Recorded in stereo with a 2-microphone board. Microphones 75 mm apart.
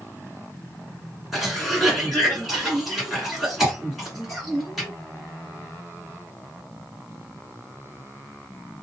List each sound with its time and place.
1.3 s a cough: centre (ahead or behind), 2.0 m